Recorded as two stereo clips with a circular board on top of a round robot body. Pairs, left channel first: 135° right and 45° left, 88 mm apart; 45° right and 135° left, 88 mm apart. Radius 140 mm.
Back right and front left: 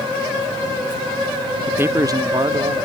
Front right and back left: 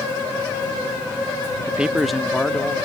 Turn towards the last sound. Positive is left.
turn(degrees=30)